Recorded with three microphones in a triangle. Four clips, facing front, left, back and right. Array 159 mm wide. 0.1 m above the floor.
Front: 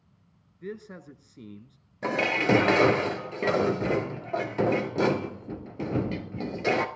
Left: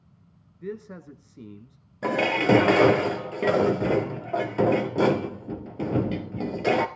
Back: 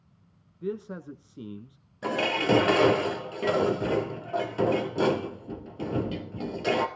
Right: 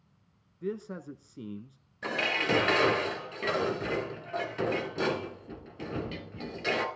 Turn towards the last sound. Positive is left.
turn(degrees=70)